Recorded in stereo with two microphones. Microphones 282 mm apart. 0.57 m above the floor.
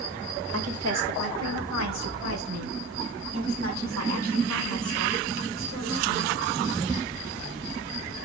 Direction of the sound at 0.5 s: 60° right (ahead or behind).